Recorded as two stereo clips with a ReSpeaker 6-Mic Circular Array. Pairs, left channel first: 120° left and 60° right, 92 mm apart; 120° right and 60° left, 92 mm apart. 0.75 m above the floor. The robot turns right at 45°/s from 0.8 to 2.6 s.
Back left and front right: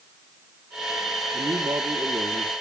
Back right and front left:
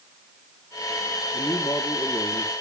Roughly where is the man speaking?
Right.